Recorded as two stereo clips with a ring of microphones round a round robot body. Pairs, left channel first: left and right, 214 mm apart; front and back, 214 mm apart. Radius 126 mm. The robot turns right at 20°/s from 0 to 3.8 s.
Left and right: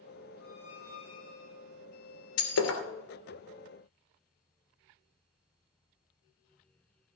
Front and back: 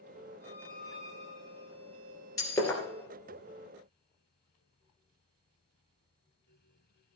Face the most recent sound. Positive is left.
turn(degrees=105)